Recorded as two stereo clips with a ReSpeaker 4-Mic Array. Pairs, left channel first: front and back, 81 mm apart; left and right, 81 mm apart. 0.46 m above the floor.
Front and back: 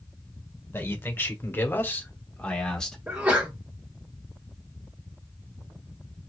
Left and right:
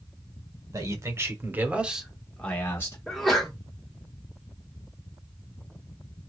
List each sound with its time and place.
0.7 s a man speaking: 55° right, 1.4 m; by 3.0 s 75° left, 1.0 m
3.1 s a sneeze: 170° left, 1.1 m